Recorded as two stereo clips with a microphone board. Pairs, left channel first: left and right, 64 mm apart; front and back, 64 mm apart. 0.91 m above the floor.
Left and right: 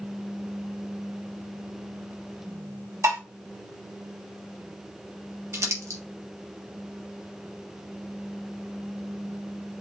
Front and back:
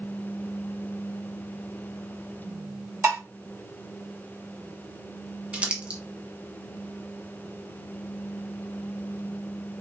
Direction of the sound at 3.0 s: 125° right.